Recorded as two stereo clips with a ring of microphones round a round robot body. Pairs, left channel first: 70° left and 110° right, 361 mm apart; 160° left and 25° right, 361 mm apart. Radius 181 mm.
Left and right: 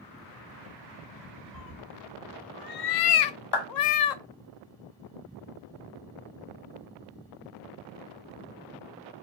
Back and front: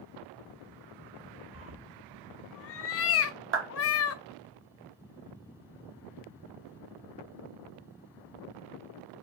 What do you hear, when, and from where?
1.5 s a cat meowing: 100° left, 0.5 m
3.5 s a clap: 35° left, 1.6 m